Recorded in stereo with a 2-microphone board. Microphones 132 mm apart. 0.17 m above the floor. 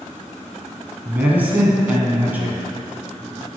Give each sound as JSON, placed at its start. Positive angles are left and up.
{"t": 1.1, "sound": "a man speaking", "side_deg": -10, "distance_m": 1.2}